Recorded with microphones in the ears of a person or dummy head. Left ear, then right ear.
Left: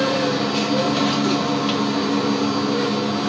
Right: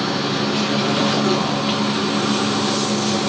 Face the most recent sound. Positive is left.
turn(degrees=10)  # may be behind; listen again after turning